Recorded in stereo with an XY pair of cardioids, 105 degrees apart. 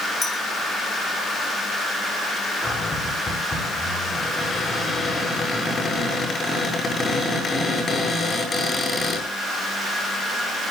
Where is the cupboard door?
35° left, 7.5 m.